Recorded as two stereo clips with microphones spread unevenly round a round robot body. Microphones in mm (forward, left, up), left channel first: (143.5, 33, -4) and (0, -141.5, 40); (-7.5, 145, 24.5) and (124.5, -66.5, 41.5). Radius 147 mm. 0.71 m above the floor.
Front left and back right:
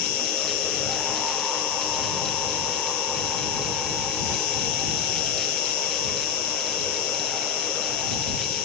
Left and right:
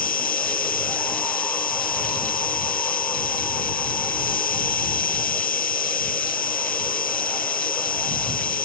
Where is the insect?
70° left.